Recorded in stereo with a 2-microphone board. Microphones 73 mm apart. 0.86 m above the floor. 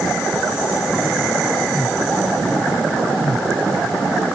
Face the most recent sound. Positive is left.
No sound to turn to.